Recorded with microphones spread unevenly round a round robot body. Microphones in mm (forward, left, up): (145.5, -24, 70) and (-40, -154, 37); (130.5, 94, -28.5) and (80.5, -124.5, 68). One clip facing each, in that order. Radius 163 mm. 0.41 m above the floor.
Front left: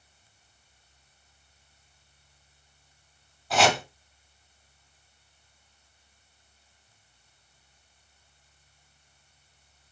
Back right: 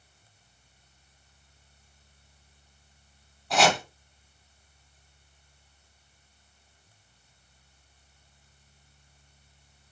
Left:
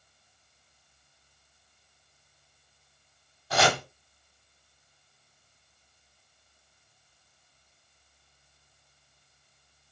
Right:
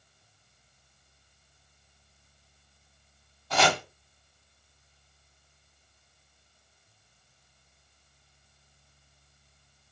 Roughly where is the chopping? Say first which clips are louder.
Even, left 1 dB; behind left.